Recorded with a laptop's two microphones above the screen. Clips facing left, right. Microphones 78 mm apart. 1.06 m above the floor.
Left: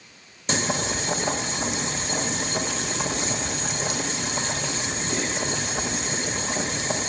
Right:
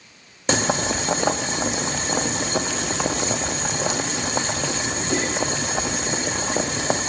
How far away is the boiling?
About 0.9 m.